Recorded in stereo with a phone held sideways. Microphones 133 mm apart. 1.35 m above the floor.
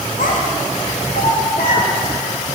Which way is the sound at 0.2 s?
75° left (ahead or behind).